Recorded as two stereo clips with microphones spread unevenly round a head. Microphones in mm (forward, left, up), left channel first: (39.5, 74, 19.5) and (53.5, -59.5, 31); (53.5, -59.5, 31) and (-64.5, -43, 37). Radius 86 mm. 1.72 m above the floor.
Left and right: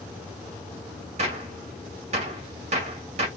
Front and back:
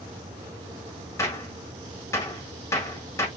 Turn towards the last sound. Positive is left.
turn(degrees=-70)